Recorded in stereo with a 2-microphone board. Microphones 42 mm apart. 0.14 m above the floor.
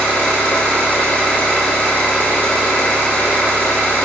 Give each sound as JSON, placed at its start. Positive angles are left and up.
{"t": 0.0, "sound": "an engine running", "side_deg": 40, "distance_m": 2.0}